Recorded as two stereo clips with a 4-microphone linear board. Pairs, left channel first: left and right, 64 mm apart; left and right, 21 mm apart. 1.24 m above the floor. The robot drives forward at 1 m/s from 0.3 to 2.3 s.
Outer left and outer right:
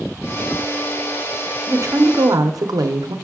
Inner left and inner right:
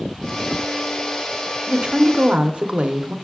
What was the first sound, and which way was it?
A woman speaking, 45° right (ahead or behind).